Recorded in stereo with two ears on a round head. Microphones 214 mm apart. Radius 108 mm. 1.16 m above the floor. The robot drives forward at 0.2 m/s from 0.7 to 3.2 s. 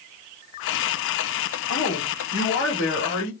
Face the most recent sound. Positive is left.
turn(degrees=55)  # may be behind; listen again after turning